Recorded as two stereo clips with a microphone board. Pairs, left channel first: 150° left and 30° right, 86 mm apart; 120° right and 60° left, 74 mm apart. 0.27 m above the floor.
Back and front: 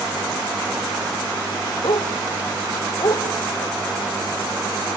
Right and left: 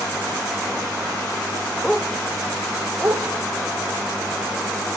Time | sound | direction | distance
1.8 | a dog barking | 155° left | 1.9 m